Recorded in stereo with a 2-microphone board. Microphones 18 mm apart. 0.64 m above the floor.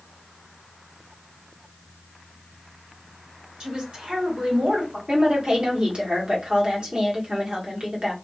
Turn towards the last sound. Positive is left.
turn(degrees=-50)  # may be behind; listen again after turning